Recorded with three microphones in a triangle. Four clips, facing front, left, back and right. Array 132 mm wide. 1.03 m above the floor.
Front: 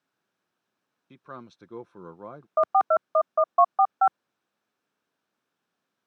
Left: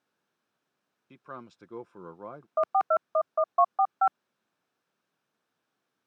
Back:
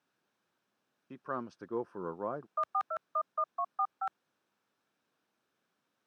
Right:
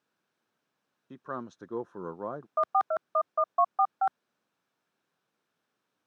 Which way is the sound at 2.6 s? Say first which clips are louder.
Left 2 dB, front 14 dB; 10° left.